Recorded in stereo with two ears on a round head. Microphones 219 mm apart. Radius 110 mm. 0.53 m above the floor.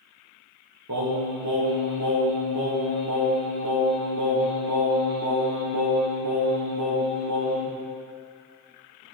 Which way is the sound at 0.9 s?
80° right.